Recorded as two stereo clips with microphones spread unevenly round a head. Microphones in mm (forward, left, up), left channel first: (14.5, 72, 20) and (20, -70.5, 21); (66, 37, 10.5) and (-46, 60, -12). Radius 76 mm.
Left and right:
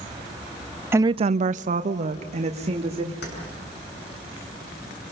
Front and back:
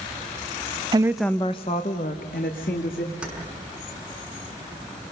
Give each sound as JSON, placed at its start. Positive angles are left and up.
{"t": 0.9, "sound": "a woman speaking", "azimuth_deg": -160, "distance_m": 0.6}
{"t": 3.2, "sound": "keys jangling", "azimuth_deg": 85, "distance_m": 6.0}